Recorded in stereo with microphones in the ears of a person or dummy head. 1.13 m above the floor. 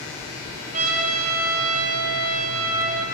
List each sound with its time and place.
0.7 s a trumpet: 50° right (ahead or behind), 4.5 m